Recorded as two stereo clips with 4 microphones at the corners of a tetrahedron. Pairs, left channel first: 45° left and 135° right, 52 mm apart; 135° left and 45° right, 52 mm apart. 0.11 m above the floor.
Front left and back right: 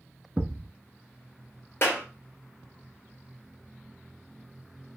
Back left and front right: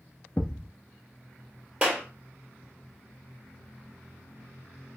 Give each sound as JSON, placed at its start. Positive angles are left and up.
{"t": 0.4, "sound": "a thud", "azimuth_deg": 175, "distance_m": 0.7}
{"t": 1.8, "sound": "a clap", "azimuth_deg": 20, "distance_m": 2.0}